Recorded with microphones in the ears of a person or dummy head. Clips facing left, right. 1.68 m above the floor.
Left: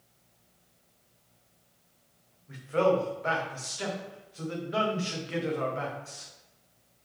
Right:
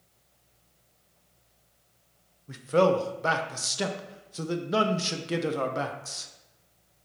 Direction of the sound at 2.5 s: 70° right (ahead or behind).